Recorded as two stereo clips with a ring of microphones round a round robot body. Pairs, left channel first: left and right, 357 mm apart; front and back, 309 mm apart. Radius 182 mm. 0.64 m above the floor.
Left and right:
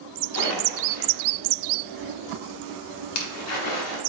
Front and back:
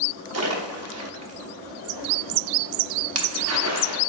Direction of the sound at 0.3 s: 140° left.